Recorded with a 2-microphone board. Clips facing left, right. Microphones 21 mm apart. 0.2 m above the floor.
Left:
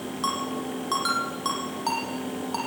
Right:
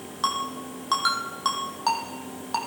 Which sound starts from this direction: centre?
A ringtone, at 0.2 s.